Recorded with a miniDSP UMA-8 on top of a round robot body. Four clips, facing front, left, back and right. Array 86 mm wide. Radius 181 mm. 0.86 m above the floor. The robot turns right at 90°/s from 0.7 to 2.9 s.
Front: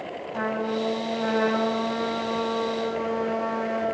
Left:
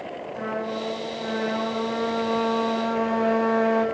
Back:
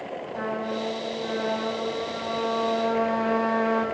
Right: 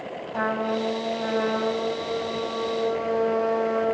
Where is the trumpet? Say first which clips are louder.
Right 4 dB, front 3 dB; 65° right, 9.5 m; by 3.9 s 130° left, 9.5 m.